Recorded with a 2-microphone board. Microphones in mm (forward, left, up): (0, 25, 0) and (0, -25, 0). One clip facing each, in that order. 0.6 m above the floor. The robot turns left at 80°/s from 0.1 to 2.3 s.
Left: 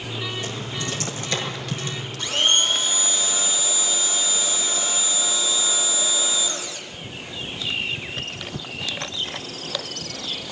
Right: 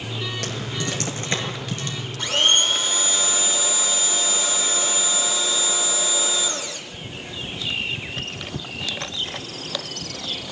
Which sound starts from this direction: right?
Typing on a keyboard, at 0.4 s.